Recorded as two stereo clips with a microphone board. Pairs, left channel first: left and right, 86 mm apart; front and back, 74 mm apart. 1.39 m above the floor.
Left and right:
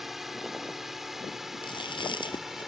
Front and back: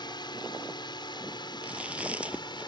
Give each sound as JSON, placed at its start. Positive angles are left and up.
{"t": 0.0, "sound": "a drone", "azimuth_deg": -5}
{"t": 1.6, "sound": "chewing", "azimuth_deg": 105}